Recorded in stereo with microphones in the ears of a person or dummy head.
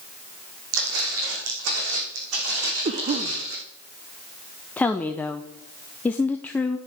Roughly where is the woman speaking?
Centre.